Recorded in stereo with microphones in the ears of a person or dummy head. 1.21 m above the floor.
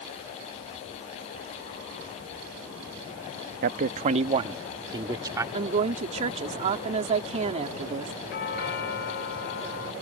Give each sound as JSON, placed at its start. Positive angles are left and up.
{"t": 3.6, "sound": "a man speaking", "side_deg": -50}
{"t": 5.5, "sound": "a woman speaking", "side_deg": -40}
{"t": 8.3, "sound": "a doorbell", "side_deg": 55}